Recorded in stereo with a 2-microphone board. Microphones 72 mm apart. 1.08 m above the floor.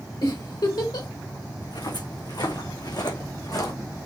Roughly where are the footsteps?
Left.